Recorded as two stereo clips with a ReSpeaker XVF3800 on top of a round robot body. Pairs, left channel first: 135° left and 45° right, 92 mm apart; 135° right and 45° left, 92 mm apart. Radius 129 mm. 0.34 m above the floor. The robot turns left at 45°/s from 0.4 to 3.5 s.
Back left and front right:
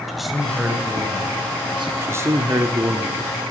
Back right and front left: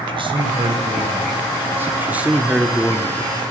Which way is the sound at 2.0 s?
10° right.